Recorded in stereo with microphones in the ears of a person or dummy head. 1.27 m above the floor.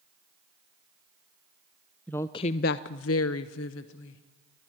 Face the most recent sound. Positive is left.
turn(degrees=65)  # may be behind; listen again after turning